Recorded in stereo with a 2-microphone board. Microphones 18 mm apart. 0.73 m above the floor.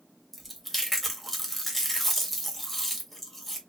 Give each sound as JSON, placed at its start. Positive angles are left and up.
{"t": 0.3, "sound": "chewing", "side_deg": 10, "distance_m": 1.4}